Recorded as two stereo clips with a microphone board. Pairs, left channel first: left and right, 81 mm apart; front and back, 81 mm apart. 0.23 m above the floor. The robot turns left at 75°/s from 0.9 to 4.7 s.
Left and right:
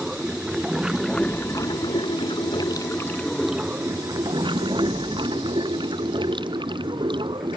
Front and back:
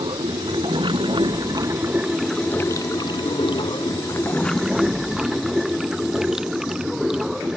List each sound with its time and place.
0.0 s running water: 170° right; by 7.6 s 95° right